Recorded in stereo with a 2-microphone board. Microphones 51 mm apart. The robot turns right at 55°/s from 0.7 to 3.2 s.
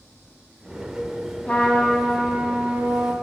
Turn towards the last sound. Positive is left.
turn(degrees=-120)